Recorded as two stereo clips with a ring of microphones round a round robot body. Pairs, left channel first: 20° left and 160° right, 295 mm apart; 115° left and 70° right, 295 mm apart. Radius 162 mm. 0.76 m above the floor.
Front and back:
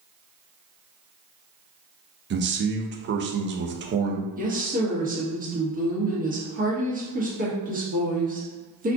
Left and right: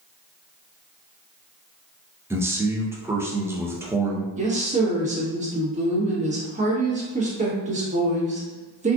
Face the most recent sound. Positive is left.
turn(degrees=-115)